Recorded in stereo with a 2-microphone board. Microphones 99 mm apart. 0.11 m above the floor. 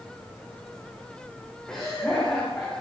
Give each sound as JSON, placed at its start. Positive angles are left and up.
{"t": 1.7, "sound": "laughter", "side_deg": 10, "distance_m": 9.5}